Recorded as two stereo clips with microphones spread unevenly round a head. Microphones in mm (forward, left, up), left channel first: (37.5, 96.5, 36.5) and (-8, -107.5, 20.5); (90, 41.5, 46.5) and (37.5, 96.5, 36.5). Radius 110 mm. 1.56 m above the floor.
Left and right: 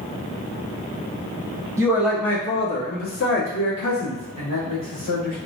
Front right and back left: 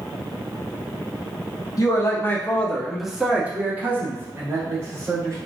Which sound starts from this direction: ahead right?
A man speaking, at 1.8 s.